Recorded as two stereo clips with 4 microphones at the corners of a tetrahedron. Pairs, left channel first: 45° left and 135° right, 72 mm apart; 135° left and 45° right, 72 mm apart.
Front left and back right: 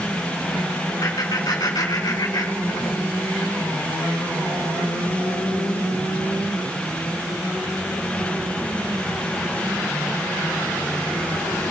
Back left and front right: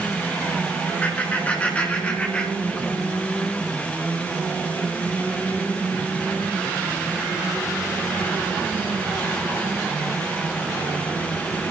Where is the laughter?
70° left, 4 m; by 3.0 s 55° left, 2.5 m.